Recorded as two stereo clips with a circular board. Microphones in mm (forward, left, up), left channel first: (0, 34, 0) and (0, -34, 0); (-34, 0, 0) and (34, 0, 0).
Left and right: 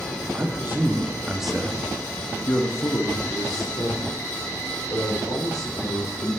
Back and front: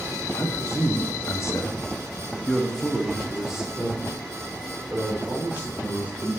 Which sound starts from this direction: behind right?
A man speaking, at 0.3 s.